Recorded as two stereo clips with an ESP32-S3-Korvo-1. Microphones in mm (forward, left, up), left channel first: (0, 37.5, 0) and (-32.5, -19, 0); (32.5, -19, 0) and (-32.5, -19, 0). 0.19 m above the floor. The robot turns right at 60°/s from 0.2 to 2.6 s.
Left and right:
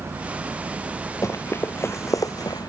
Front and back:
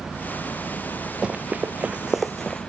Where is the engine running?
85° right; by 2.7 s 60° left.